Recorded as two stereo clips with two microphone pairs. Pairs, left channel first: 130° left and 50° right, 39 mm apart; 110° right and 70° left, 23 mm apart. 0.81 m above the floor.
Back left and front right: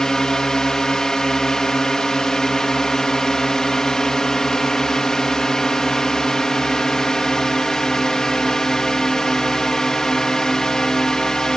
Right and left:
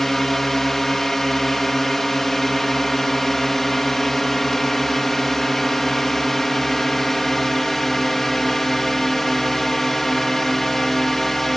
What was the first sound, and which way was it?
A drone, 170° right.